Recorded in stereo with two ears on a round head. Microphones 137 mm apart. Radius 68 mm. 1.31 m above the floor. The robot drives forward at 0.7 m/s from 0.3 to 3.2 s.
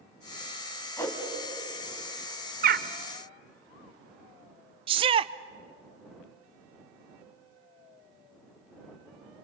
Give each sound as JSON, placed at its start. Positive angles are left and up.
{"t": 1.0, "sound": "a whoosh", "side_deg": 15, "distance_m": 3.0}
{"t": 2.6, "sound": "a bird", "side_deg": -60, "distance_m": 1.0}
{"t": 4.9, "sound": "a shout", "side_deg": -35, "distance_m": 0.6}